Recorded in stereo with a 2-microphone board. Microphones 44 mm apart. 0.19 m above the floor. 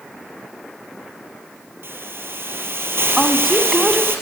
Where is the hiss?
70° right (ahead or behind), 5 m.